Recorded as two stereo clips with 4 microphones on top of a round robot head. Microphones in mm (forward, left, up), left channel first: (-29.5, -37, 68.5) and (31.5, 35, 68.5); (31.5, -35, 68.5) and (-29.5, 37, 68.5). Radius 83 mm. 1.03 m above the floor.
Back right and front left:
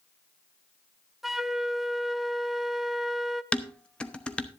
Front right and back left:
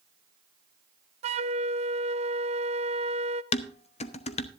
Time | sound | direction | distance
1.2 | a flute | 135° left | 0.5 m
3.5 | dishes clattering | 50° right | 0.8 m